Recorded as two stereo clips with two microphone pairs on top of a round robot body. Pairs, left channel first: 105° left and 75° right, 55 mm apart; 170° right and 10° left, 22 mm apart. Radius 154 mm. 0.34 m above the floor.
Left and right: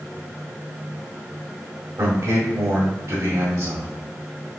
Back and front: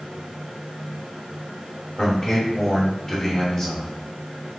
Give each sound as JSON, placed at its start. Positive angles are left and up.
{"t": 2.0, "sound": "a man speaking", "azimuth_deg": -95, "distance_m": 1.8}